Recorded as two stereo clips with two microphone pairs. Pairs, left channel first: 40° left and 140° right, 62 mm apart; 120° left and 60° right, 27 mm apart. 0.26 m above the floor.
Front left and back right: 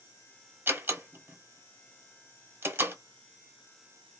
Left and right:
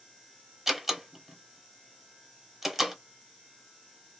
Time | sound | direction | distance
0.7 | a door slam | 130° right | 1.0 m